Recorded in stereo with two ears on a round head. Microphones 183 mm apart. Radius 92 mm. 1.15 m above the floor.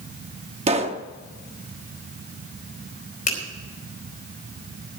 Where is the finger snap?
40° left (ahead or behind), 4 m.